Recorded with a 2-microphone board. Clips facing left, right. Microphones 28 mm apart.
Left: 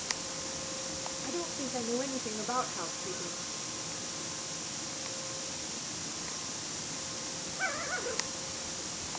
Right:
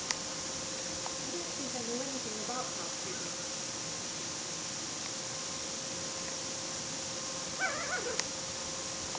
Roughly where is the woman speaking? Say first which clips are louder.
Left 3 dB; left.